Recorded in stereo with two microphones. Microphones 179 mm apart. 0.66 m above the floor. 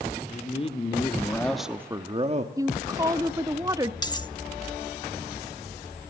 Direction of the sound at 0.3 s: 40° left (ahead or behind).